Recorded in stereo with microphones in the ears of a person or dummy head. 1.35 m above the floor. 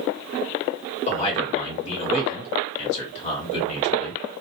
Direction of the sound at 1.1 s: 40° left (ahead or behind).